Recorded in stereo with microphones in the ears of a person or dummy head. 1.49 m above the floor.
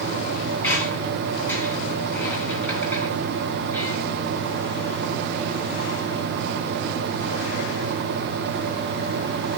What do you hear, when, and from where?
0.6 s a squeak: 10° left (ahead or behind), 5.5 m